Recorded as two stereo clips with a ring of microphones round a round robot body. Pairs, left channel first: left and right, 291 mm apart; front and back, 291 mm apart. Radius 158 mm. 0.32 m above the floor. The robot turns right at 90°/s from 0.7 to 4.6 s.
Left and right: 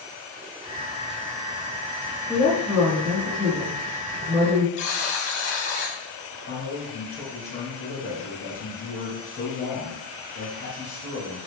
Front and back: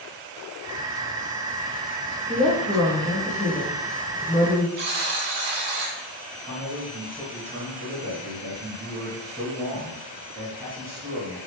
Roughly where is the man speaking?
Behind left.